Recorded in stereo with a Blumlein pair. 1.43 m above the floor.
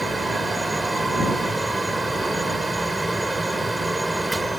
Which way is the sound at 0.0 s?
5° right.